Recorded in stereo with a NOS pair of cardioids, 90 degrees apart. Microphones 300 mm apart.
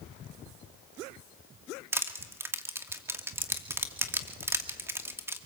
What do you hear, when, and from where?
1.9 s crushing: 10° right, 2 m